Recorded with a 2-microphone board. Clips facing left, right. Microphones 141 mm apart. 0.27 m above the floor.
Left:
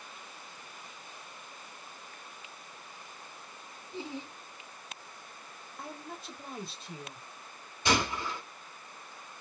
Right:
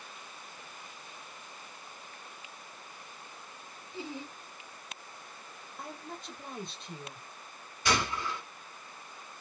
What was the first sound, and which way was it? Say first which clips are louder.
Laughter: left 1 dB; 30° left (ahead or behind).